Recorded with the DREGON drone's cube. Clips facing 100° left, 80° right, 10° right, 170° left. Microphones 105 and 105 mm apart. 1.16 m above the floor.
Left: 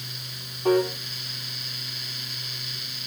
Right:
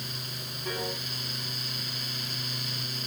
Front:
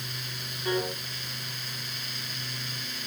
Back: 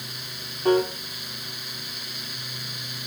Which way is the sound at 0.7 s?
130° left.